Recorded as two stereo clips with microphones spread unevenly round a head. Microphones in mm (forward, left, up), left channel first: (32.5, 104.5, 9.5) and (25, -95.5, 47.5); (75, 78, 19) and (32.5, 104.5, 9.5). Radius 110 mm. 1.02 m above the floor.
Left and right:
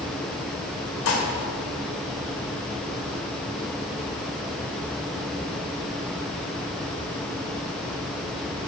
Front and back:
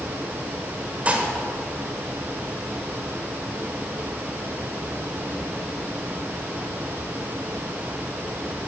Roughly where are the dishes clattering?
Left.